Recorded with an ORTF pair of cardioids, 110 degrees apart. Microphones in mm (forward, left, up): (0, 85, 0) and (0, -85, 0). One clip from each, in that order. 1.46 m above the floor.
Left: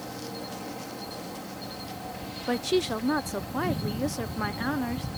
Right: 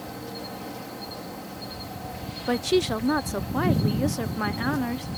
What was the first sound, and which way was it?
An insect, 5° right.